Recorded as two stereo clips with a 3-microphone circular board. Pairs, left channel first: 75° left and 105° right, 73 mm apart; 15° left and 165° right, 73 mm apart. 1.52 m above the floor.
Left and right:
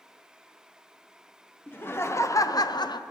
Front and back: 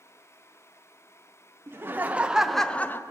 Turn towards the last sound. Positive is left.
turn(degrees=70)